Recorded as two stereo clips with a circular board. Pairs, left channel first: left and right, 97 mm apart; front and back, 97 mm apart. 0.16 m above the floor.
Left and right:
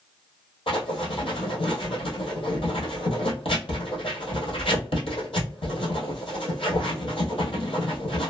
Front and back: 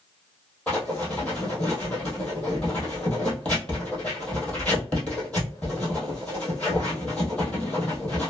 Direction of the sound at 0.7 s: 75° left.